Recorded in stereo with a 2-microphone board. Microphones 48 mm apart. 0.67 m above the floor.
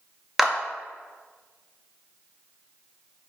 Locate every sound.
0.4 s a clap: 5° right (ahead or behind), 0.5 m